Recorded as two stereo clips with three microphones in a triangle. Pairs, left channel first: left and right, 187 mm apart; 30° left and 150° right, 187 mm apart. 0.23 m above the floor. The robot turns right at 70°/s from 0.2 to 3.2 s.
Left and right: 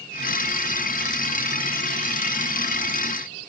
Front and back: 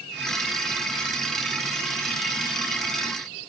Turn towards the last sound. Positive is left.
No sound to turn to.